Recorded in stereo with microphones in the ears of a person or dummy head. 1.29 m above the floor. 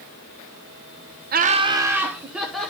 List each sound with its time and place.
1.3 s laughter: 40° right (ahead or behind), 0.6 m; by 2.7 s 5° left (ahead or behind), 1.6 m